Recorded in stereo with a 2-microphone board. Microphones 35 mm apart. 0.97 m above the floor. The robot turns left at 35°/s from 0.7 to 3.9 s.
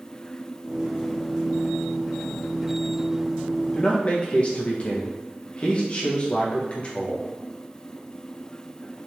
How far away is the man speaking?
About 0.6 m.